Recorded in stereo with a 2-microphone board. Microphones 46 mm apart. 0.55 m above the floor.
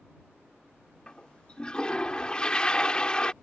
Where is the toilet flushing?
20° left (ahead or behind).